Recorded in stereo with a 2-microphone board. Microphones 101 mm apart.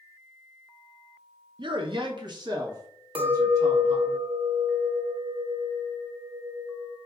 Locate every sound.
1.6 s a man speaking: 50° right (ahead or behind), 0.6 m; by 4.2 s 35° right (ahead or behind), 2.5 m
3.1 s a clink: 60° right (ahead or behind), 0.9 m